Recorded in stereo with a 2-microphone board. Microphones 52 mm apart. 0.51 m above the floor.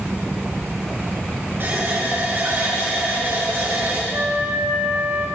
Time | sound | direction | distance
1.6 | a running tap | 45° right (ahead or behind) | 4.5 m
4.1 | a flute | 60° right (ahead or behind) | 3 m